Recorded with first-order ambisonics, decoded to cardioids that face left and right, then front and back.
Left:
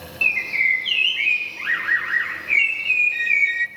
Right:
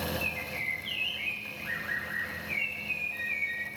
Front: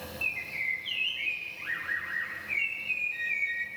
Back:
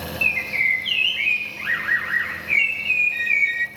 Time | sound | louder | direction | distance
0.2 | a bird | left 14 dB, back 12 dB | 130° left | 0.5 m